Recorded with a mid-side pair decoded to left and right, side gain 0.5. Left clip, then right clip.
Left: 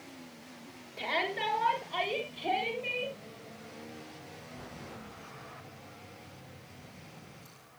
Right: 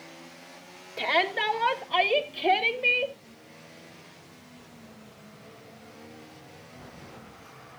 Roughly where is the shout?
Ahead right.